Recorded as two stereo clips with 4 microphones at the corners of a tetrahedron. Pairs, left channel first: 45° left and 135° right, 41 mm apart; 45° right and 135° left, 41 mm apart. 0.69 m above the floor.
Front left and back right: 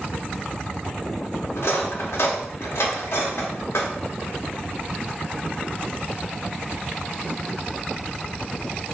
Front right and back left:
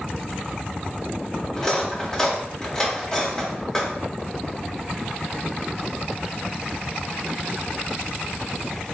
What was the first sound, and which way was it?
Cutlery clinking, 30° left.